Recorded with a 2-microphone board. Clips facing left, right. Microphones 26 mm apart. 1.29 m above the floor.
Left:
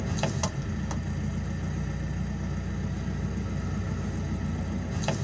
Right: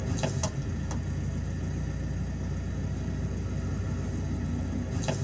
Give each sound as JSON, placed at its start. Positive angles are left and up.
{"t": 0.0, "sound": "an engine running", "side_deg": 25, "distance_m": 1.2}